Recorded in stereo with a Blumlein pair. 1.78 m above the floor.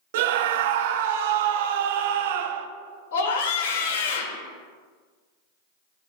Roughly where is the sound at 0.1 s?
Ahead right.